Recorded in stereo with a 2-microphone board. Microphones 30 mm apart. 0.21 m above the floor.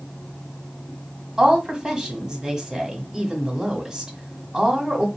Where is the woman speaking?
25° right (ahead or behind), 1.4 m.